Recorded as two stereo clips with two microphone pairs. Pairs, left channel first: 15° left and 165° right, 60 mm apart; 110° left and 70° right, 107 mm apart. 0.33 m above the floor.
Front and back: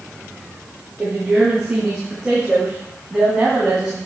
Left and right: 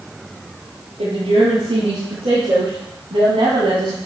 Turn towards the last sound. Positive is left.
turn(degrees=-95)